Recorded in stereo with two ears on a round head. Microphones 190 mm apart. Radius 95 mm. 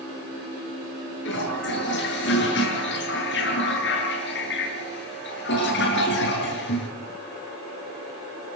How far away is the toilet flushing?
About 9 m.